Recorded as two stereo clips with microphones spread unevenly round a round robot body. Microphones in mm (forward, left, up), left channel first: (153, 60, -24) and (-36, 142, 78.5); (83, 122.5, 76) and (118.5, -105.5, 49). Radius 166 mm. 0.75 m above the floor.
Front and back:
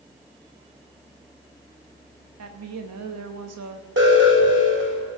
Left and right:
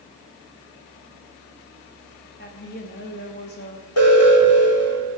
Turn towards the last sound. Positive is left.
turn(degrees=115)